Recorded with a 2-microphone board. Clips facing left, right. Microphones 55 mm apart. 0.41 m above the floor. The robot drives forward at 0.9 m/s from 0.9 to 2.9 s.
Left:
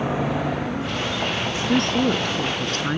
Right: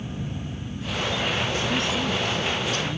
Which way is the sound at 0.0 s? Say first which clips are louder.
Left 11 dB; 90° left.